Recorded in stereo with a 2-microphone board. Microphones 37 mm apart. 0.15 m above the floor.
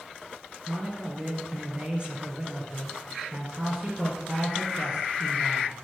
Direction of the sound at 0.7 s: 30° right (ahead or behind).